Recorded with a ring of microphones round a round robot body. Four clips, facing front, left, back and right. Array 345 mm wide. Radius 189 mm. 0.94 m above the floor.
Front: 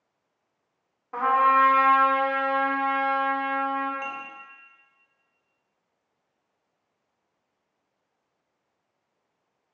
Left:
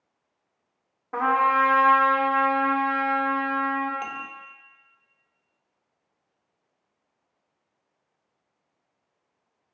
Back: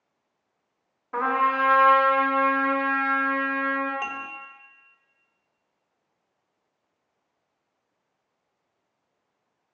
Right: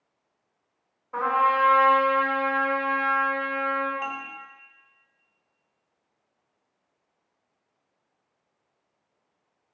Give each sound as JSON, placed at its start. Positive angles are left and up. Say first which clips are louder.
{"t": 1.1, "sound": "a trumpet", "louder": "left 1 dB, front 3 dB", "azimuth_deg": 100, "distance_m": 2.5}
{"t": 4.0, "sound": "dishes clattering", "louder": "right 1 dB, back 2 dB", "azimuth_deg": 130, "distance_m": 1.0}